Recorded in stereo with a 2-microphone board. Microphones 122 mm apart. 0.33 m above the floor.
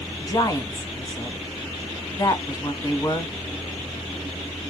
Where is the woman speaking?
30° left (ahead or behind), 1.7 m.